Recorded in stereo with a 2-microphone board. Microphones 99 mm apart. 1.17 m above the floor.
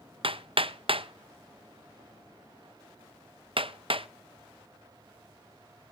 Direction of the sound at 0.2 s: 65° right (ahead or behind).